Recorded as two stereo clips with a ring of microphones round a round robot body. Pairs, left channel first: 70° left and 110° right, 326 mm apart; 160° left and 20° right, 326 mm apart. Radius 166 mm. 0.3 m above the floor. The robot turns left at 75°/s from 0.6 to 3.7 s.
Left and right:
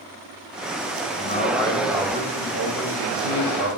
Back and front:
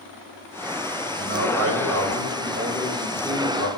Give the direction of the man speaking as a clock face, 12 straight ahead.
11 o'clock.